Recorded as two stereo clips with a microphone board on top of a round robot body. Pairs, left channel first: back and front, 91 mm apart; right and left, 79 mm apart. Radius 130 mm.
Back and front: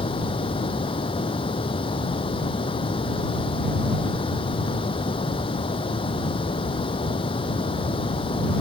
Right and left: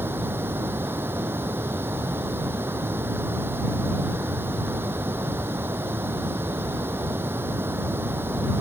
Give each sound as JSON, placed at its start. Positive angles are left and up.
{"t": 0.0, "sound": "running water", "azimuth_deg": 150}